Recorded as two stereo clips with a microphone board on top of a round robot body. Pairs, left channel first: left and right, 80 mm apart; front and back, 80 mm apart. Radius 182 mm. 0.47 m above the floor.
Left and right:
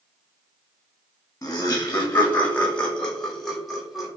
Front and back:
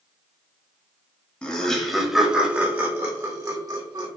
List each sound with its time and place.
1.4 s laughter: 65° left, 1.2 m; by 4.1 s 175° right, 1.5 m